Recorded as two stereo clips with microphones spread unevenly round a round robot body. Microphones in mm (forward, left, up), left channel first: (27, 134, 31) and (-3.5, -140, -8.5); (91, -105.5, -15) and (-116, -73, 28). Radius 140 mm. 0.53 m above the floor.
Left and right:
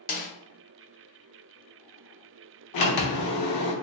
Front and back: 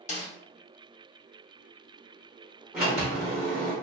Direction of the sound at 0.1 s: 25° left.